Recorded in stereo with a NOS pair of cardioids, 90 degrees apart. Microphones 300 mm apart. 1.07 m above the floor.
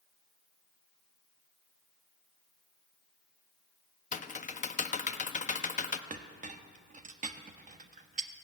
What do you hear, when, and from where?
4.1 s typing on a keyboard: 25° left, 1.0 m
6.1 s a clink: 25° right, 1.2 m